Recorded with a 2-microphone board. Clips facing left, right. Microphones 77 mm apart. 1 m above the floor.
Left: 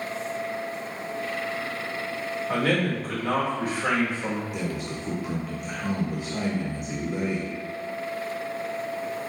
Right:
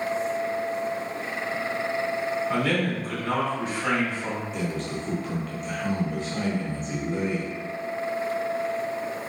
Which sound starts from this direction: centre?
A man speaking, at 4.5 s.